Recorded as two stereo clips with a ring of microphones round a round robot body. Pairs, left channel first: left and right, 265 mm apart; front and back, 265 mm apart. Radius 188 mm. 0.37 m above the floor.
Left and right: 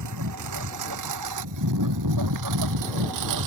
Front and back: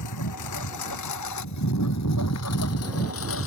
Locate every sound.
0.0 s a lawn mower: 45° right; by 3.5 s 60° right